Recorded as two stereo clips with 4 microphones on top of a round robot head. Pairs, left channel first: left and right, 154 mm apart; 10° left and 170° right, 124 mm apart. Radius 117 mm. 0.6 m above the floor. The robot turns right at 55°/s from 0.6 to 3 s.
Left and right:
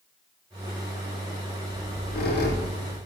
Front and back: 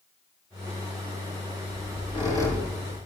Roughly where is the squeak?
Ahead left.